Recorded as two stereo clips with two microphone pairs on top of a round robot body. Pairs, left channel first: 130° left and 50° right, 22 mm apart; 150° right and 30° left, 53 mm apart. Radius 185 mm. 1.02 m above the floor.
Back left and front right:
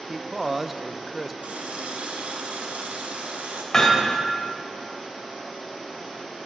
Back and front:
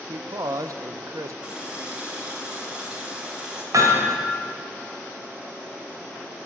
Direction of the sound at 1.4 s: 40° right.